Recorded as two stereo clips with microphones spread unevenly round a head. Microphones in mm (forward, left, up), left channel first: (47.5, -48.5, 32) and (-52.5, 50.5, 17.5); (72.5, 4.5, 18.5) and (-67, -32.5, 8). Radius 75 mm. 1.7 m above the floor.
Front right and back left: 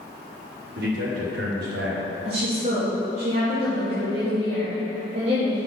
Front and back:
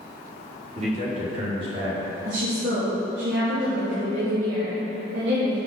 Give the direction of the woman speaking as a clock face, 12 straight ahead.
6 o'clock.